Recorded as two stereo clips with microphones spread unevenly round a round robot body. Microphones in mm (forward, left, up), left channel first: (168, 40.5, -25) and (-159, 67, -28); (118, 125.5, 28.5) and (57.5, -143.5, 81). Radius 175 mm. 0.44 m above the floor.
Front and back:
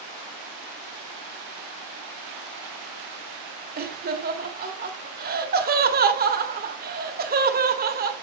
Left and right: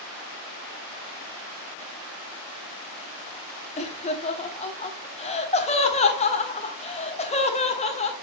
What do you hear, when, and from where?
3.8 s laughter: 125° left, 1.4 m